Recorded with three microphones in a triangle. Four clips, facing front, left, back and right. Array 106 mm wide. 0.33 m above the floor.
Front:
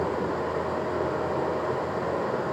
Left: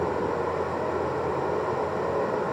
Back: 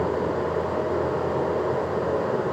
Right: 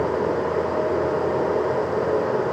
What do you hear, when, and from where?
0.0 s running water: 110° right, 6.5 m